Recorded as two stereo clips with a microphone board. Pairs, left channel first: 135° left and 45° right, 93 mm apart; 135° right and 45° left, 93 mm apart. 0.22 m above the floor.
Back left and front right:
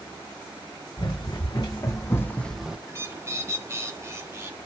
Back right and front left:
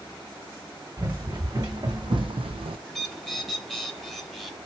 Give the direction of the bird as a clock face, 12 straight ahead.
2 o'clock.